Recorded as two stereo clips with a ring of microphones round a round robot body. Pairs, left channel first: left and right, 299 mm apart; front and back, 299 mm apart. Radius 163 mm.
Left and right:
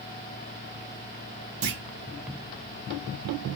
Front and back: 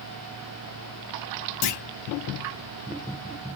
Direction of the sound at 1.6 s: 30° right.